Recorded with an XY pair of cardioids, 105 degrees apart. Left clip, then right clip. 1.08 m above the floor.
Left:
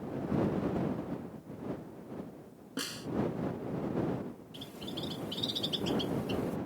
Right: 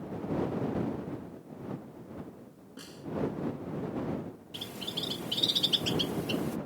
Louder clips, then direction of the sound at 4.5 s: Right 6 dB; 55° right.